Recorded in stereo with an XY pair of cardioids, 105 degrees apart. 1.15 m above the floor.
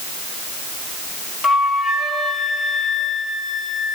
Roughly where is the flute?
Ahead.